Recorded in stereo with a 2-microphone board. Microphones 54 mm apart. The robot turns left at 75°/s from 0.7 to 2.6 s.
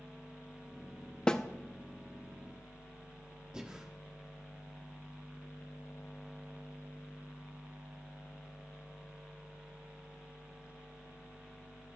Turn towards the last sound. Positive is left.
turn(degrees=-15)  # may be behind; listen again after turning